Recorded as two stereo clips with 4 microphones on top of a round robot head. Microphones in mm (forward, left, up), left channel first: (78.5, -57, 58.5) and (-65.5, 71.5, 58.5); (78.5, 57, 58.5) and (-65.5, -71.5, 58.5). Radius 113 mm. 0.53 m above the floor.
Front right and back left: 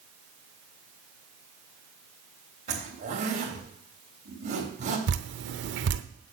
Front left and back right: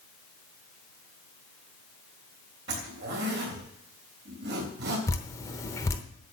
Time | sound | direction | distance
2.7 | a zipper | 170° right | 3.5 m
5.1 | dripping | 115° left | 0.9 m